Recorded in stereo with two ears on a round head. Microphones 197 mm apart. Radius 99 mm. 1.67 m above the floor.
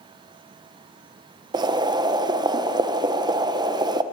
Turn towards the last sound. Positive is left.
turn(degrees=-20)  # may be behind; listen again after turning